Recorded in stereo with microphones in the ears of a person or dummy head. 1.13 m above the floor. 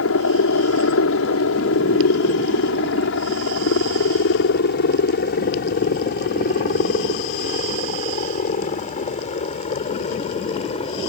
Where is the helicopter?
65° left (ahead or behind); by 11.1 s 30° left (ahead or behind).